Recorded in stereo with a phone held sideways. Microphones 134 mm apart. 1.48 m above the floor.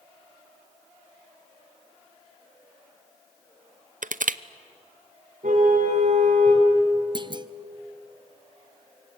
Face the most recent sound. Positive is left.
turn(degrees=-35)  # may be behind; listen again after turning